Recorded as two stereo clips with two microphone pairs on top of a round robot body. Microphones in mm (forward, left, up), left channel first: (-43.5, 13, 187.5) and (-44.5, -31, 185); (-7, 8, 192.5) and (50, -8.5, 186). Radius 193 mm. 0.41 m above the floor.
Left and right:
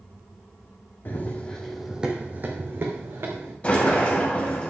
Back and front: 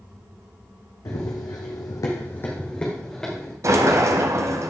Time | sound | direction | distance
1.1 | running footsteps | 135° left | 1.3 m
3.6 | a sliding door | 25° left | 0.7 m